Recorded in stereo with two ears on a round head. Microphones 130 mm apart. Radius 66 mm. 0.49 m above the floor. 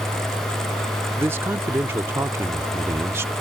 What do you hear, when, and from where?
1.2 s a man speaking: 15° right (ahead or behind)